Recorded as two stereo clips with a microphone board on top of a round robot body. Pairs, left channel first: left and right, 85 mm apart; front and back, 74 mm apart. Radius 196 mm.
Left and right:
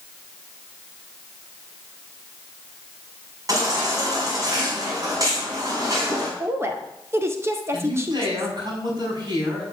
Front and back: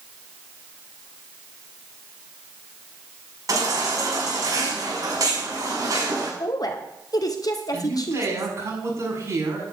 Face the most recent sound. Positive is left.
turn(degrees=-130)